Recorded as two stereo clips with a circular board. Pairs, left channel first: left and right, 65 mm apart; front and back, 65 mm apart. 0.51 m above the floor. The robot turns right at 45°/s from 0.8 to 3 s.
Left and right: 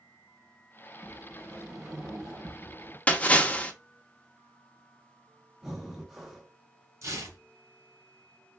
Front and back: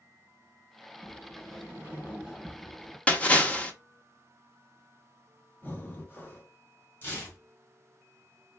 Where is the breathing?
5° right, 0.8 m.